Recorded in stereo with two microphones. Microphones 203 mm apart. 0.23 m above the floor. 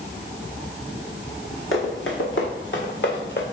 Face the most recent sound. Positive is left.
turn(degrees=55)  # may be behind; listen again after turning